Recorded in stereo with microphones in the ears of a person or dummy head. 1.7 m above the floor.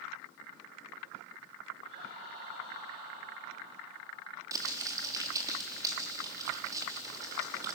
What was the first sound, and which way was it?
Laughter, 45° right (ahead or behind).